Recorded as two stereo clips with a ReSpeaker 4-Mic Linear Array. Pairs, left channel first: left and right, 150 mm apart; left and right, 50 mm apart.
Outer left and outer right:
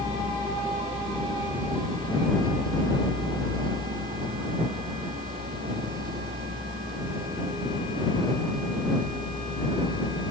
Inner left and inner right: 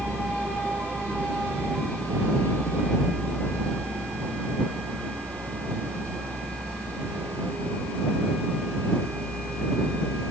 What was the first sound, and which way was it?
A vehicle, 55° right (ahead or behind).